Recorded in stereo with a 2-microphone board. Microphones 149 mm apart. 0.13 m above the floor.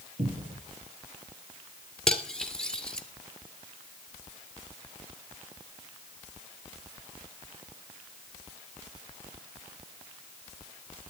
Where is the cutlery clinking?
5° left (ahead or behind), 1.7 m.